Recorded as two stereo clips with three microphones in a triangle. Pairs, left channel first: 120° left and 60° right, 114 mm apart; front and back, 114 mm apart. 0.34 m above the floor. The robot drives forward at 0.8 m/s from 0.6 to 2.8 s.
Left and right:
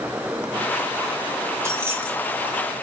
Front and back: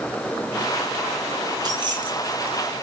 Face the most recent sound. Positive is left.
turn(degrees=-140)